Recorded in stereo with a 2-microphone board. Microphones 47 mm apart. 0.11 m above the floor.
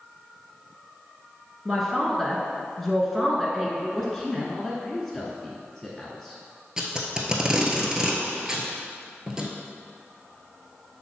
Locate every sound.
1.6 s a man speaking: centre (ahead or behind), 1.1 m
3.9 s a man speaking: centre (ahead or behind), 1.1 m
6.8 s tape being pulled: 15° right (ahead or behind), 0.9 m